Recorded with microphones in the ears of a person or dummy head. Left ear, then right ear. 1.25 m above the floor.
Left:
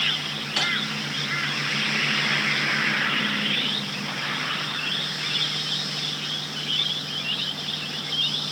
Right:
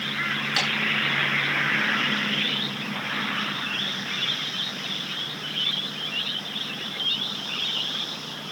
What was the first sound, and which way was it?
Tapping, 20° right (ahead or behind).